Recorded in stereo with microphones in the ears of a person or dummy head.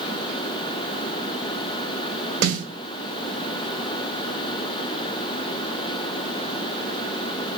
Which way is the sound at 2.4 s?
55° right (ahead or behind).